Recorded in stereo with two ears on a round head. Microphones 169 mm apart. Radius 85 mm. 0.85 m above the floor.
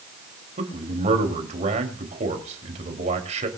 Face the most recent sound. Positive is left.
turn(degrees=-35)  # may be behind; listen again after turning